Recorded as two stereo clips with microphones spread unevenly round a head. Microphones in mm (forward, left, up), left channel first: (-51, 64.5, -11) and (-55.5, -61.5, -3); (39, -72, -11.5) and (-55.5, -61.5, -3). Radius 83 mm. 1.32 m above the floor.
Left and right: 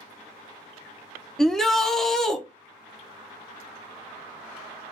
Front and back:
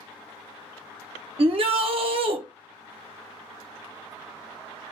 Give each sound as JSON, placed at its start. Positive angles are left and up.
{"t": 1.4, "sound": "a shout", "azimuth_deg": 170, "distance_m": 0.7}